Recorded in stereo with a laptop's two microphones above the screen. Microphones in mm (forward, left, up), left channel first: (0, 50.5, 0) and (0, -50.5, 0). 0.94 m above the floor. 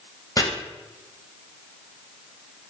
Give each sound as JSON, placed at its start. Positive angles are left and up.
{"t": 0.4, "sound": "chopping", "side_deg": 40, "distance_m": 0.9}